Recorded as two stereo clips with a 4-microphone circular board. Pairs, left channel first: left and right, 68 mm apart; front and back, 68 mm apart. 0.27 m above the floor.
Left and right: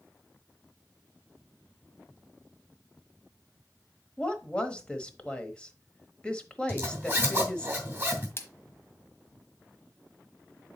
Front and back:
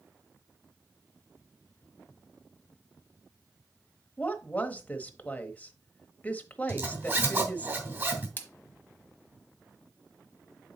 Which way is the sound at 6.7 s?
145° right.